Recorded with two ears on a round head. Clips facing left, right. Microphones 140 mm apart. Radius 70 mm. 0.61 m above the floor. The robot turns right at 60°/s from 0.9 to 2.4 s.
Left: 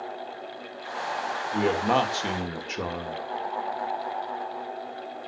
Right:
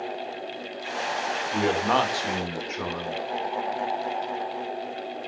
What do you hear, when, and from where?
1.5 s a man speaking: 10° right, 2.5 m; by 3.2 s 45° left, 2.5 m